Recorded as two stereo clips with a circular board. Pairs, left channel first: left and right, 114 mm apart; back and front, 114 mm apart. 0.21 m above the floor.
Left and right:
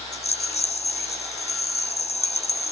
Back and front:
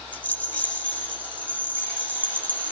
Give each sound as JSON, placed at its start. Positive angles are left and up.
{"t": 0.1, "sound": "a rattle", "azimuth_deg": 105, "distance_m": 3.0}